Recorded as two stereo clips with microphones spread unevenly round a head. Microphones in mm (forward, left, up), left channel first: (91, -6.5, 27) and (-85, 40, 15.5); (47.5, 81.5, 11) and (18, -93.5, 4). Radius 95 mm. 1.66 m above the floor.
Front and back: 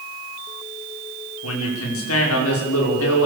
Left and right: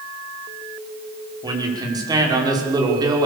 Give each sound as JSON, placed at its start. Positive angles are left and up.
{"t": 1.4, "sound": "a man speaking", "azimuth_deg": -30, "distance_m": 6.0}